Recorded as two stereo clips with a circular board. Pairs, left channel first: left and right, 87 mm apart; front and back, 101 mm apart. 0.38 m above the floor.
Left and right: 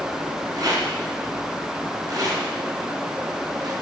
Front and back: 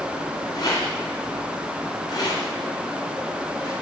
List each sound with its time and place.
0.5 s a rattle: 45° right, 2.5 m